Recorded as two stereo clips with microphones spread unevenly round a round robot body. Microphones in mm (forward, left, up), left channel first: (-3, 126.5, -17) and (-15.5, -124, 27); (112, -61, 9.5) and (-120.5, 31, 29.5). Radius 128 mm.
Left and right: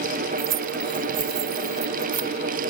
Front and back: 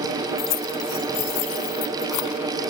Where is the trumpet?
I don't hear a trumpet.